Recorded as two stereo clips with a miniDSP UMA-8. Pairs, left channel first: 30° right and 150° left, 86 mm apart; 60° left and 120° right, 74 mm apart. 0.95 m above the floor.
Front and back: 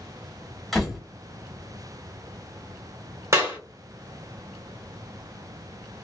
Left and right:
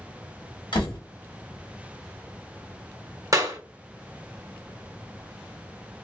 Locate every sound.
0.7 s a door slam: 60° left, 1.2 m
3.3 s a clap: 155° right, 0.9 m